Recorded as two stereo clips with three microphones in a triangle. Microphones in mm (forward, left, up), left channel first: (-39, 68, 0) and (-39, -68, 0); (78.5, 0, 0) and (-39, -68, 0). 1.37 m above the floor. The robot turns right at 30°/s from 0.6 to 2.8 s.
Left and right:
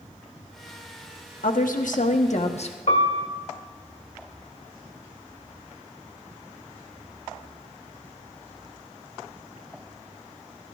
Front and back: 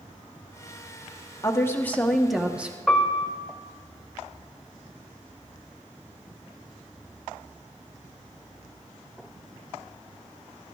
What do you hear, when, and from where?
1.4 s a woman speaking: 95° left, 1.0 m; by 2.8 s 135° left, 1.0 m
2.9 s a piano: 125° left, 1.7 m